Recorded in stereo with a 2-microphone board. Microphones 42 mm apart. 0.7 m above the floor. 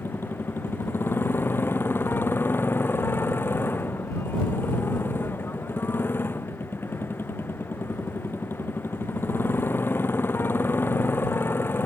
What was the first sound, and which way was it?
A motorcycle, 65° left (ahead or behind).